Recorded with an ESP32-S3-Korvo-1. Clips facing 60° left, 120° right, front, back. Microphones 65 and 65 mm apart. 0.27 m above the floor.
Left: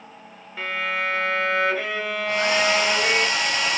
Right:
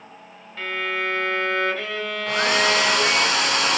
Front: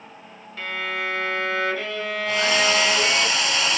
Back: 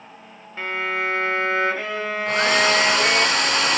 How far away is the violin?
About 0.6 m.